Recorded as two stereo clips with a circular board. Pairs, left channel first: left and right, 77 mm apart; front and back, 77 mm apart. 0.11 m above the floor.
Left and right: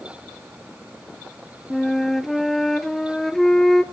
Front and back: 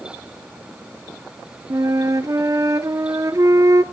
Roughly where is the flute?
Behind.